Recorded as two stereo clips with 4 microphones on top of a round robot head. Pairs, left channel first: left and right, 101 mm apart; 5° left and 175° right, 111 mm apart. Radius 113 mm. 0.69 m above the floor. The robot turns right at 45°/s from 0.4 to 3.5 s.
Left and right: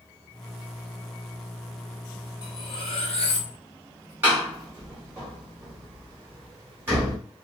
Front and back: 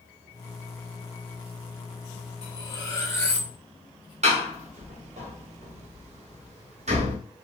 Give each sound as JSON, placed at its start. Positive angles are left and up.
{"t": 2.4, "sound": "cutlery clinking", "azimuth_deg": 40, "distance_m": 1.2}
{"t": 4.2, "sound": "a door slam", "azimuth_deg": -160, "distance_m": 1.5}